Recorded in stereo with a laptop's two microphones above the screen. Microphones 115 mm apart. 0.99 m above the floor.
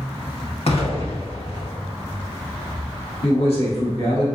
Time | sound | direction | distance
0.7 | an explosion | 60° left (ahead or behind) | 0.9 m
3.2 | a man speaking | 60° left (ahead or behind) | 1.1 m